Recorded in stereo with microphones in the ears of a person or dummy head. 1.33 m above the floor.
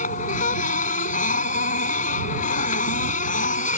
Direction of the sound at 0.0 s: 45° left (ahead or behind).